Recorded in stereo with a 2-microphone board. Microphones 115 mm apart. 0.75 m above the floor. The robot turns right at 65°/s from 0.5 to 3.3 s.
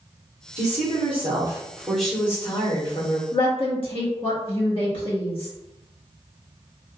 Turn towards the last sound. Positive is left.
turn(degrees=50)  # may be behind; listen again after turning